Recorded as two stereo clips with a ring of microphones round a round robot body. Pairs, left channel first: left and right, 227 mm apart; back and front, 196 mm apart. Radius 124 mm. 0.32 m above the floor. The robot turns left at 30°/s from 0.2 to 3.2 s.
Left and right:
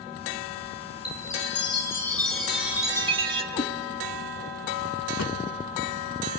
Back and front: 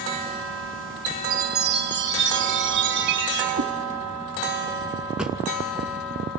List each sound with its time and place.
1.1 s a chime: 40° left, 3 m; by 3.4 s 25° right, 3 m
3.5 s a cat meowing: 30° left, 1.5 m
5.2 s a drawer: 85° left, 2 m